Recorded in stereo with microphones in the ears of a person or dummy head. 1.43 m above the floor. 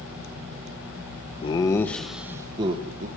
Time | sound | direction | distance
1.4 | laughter | 35° left (ahead or behind) | 0.8 m